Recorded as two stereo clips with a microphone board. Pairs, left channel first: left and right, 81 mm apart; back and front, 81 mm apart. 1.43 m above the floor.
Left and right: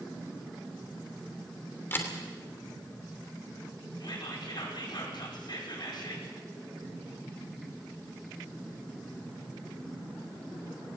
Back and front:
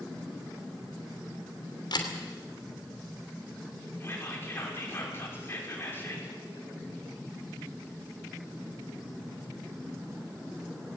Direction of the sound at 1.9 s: 155° left.